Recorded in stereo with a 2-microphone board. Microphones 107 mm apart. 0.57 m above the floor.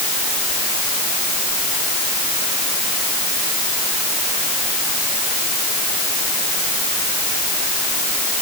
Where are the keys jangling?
No keys jangling in this recording.